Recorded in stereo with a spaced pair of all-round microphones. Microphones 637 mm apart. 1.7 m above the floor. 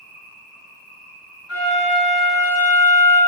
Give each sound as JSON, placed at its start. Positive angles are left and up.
{"t": 0.0, "sound": "an insect", "side_deg": -45, "distance_m": 0.8}
{"t": 1.5, "sound": "a flute", "side_deg": -30, "distance_m": 1.7}